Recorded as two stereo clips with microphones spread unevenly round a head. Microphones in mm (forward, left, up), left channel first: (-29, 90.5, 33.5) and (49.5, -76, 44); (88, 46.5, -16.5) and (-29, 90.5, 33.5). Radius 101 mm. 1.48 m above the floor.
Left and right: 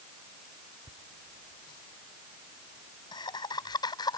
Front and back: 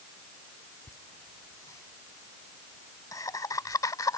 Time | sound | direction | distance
0.9 | laughter | 50° left | ?